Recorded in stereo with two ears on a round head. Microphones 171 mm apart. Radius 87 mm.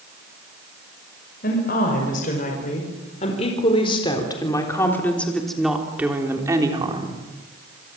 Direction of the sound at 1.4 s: 50° left (ahead or behind).